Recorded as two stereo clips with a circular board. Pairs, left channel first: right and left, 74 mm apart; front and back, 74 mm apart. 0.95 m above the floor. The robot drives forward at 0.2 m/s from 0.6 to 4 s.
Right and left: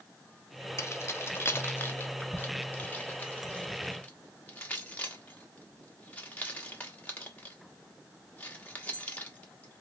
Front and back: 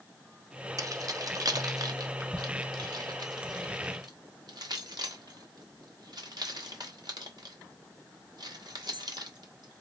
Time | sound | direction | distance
0.8 | keys jangling | 145° right | 0.7 m